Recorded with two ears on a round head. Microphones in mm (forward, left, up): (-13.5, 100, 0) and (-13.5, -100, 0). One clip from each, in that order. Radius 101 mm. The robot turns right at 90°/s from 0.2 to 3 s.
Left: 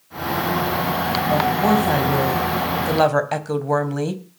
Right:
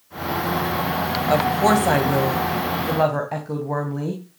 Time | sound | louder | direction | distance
1.3 | a woman speaking | right 2 dB | 90° right | 4 m